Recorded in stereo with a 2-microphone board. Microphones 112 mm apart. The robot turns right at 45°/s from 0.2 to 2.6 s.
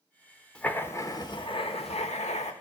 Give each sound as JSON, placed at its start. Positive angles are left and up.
{"t": 0.6, "sound": "writing", "azimuth_deg": 10, "distance_m": 1.2}